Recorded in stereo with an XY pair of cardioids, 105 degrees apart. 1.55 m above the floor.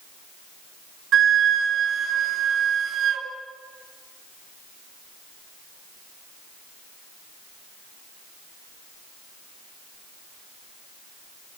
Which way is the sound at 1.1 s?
70° right.